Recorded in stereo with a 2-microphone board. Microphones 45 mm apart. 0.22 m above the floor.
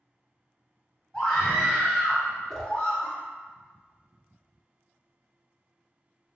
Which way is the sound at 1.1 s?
10° left (ahead or behind).